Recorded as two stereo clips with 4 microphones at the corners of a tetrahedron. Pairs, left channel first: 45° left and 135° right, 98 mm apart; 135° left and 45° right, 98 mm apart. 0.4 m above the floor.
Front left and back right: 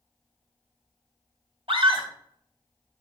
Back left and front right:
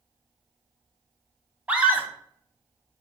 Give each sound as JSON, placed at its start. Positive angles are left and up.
{"t": 1.7, "sound": "a scream", "azimuth_deg": -120, "distance_m": 2.0}